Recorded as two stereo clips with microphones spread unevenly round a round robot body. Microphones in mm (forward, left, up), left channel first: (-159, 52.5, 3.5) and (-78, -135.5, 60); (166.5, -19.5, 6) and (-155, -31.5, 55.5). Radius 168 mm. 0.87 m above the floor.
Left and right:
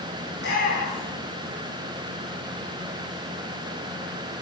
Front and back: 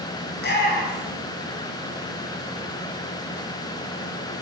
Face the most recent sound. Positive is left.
turn(degrees=65)